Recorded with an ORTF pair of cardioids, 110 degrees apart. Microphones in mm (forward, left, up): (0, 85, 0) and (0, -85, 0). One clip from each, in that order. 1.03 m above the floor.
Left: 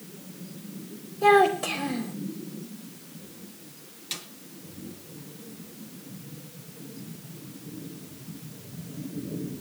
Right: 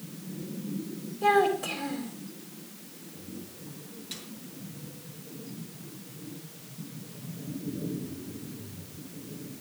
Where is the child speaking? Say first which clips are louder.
Left 4 dB; 35° left, 3.5 m.